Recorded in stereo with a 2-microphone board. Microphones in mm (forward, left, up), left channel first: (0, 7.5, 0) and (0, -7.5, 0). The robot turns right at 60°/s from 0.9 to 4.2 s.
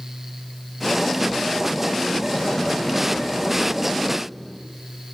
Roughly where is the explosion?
Left.